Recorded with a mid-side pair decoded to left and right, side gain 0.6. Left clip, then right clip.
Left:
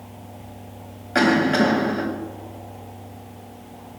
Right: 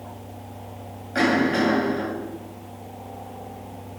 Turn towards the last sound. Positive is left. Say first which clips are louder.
# left 3 dB
turn(degrees=40)